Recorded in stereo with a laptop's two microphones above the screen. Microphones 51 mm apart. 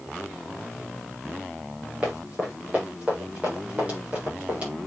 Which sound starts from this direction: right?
Running footsteps, at 2.0 s.